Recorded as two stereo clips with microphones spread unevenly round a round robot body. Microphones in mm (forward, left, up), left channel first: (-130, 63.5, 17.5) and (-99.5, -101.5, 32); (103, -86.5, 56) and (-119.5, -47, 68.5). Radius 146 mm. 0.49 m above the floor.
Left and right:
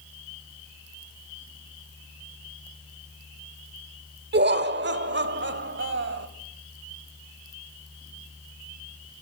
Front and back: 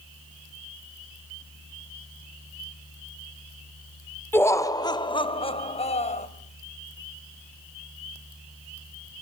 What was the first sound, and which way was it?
Laughter, 90° right.